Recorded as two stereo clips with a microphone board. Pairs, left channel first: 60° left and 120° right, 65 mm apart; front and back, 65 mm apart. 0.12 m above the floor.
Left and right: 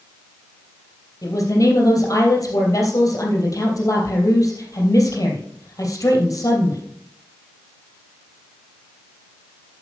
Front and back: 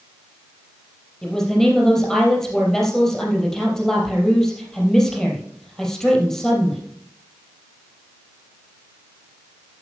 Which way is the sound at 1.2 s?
80° left.